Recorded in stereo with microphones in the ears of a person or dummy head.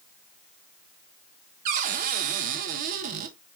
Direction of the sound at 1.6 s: 40° right (ahead or behind).